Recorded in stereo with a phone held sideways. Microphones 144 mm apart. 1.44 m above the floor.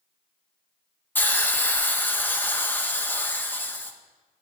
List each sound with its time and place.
1.1 s a hiss: 15° left (ahead or behind), 0.6 m